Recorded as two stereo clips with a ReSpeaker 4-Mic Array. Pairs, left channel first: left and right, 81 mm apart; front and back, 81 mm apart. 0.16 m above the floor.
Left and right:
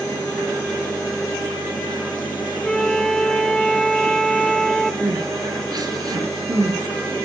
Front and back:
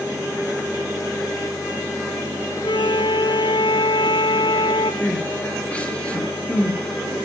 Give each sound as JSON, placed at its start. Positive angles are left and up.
{"t": 2.6, "sound": "a flute", "azimuth_deg": 5, "distance_m": 0.6}
{"t": 5.0, "sound": "crying", "azimuth_deg": -70, "distance_m": 3.0}